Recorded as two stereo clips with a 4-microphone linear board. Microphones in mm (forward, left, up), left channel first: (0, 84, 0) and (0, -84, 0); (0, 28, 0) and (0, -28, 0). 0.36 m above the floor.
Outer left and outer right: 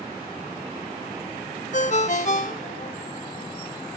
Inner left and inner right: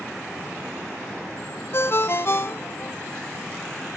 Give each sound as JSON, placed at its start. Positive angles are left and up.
{"t": 1.7, "sound": "a ringtone", "side_deg": 45, "distance_m": 0.8}